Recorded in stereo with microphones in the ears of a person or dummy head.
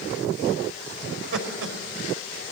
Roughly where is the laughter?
Right.